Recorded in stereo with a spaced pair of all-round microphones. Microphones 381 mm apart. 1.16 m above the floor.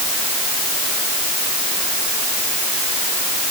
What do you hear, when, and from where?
Only background noise.